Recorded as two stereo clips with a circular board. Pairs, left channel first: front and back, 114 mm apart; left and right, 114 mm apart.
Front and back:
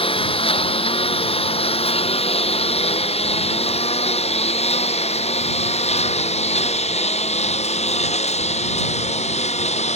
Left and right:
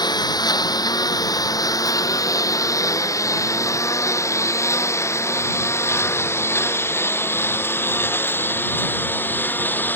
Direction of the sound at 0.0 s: 40° left.